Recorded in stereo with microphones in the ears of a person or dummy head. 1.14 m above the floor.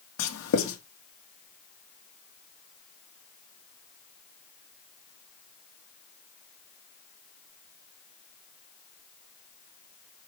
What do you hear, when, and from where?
0.2 s writing: 70° left (ahead or behind), 2 m